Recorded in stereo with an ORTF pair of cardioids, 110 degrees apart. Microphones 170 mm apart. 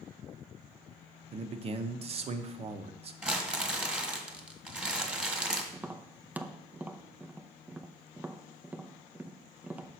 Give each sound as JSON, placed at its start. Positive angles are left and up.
{"t": 1.3, "sound": "a man speaking", "azimuth_deg": -40, "distance_m": 0.8}
{"t": 3.2, "sound": "crumpling", "azimuth_deg": -5, "distance_m": 1.6}
{"t": 5.7, "sound": "tapping", "azimuth_deg": -10, "distance_m": 0.5}